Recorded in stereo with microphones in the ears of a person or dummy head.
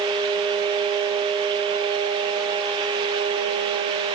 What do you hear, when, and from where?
Only background noise.